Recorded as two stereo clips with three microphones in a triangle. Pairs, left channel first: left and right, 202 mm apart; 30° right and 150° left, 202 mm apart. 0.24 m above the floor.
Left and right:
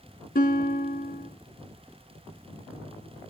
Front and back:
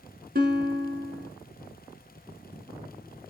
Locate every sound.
0.3 s a guitar: 120° left, 1.3 m